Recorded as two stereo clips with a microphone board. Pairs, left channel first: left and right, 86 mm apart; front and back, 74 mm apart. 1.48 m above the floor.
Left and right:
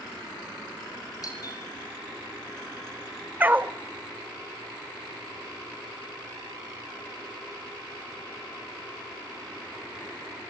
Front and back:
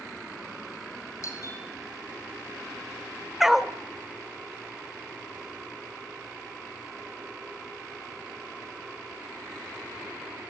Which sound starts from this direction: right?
A dog barking, at 3.4 s.